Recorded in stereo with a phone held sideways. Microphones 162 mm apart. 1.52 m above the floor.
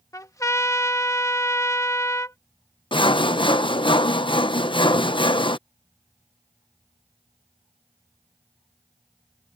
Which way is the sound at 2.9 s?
30° left (ahead or behind).